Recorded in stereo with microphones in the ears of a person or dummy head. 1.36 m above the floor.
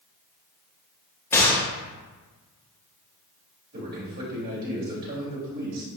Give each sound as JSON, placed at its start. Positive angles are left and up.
{"t": 1.3, "sound": "a gunshot", "side_deg": 10, "distance_m": 1.7}
{"t": 3.7, "sound": "a man speaking", "side_deg": -55, "distance_m": 3.0}